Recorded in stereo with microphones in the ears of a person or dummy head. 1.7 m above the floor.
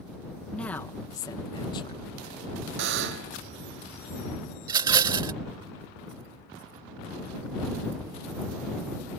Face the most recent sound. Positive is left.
turn(degrees=-25)  # may be behind; listen again after turning